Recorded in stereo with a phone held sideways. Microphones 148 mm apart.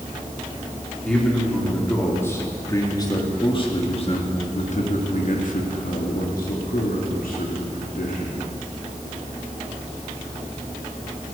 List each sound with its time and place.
1.0 s a man speaking: 5° left (ahead or behind), 3 m; by 8.4 s 70° left (ahead or behind), 3 m